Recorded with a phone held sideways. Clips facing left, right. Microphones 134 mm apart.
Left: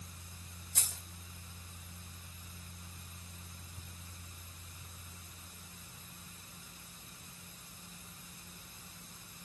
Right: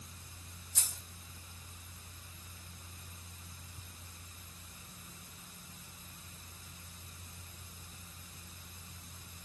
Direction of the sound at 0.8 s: 70° left (ahead or behind).